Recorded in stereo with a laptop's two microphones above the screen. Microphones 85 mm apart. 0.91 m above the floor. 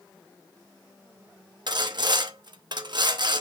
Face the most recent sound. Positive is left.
turn(degrees=-60)  # may be behind; listen again after turning